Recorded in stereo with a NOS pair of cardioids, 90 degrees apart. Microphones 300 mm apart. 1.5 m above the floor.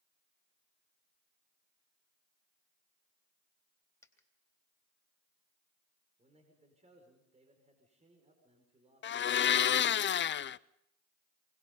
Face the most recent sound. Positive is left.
turn(degrees=40)